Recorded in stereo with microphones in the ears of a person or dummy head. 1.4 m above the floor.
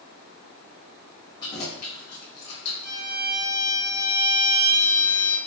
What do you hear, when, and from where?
1.4 s keys jangling: 25° left (ahead or behind), 1.3 m; by 3.0 s 70° left (ahead or behind), 1.6 m
2.8 s a violin: 75° left (ahead or behind), 1.6 m